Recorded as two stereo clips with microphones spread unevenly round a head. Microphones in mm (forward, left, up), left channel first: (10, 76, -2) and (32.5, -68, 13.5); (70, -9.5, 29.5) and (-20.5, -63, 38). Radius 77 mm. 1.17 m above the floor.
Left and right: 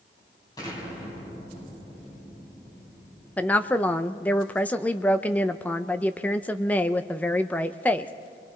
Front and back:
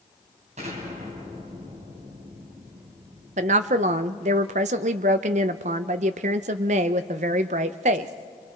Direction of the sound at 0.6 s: 170° left.